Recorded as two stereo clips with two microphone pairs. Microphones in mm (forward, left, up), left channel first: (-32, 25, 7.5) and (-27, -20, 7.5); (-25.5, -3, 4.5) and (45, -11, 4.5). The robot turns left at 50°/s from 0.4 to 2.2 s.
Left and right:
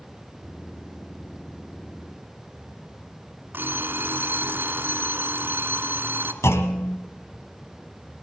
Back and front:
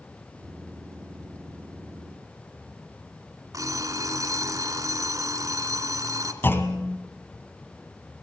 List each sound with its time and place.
3.5 s an alarm clock: 40° right, 2.5 m
6.4 s a clunk: 115° left, 2 m